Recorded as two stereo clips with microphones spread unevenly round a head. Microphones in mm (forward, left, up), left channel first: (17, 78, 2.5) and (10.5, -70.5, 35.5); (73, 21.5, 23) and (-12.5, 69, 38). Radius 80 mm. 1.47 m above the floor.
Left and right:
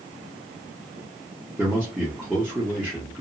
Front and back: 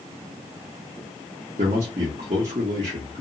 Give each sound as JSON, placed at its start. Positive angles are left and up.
{"t": 1.6, "sound": "a man speaking", "azimuth_deg": 180, "distance_m": 0.7}